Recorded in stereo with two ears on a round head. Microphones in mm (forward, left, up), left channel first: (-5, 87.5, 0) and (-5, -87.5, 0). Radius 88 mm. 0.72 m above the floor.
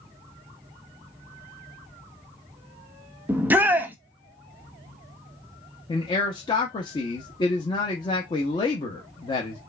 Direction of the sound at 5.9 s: 25° left (ahead or behind).